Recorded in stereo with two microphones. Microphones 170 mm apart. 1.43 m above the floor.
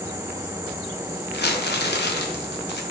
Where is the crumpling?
75° left (ahead or behind), 0.6 m.